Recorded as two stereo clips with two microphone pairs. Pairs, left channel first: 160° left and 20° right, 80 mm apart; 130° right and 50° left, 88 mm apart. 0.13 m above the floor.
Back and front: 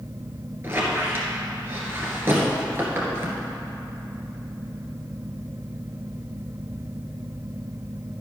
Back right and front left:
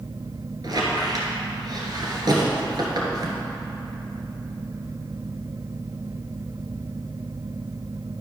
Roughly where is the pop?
No pop in this recording.